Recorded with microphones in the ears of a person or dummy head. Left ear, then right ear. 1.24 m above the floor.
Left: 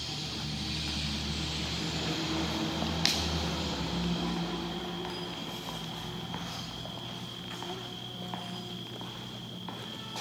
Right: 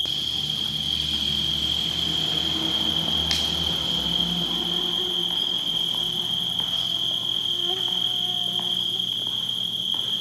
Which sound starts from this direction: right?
An insect, at 0.0 s.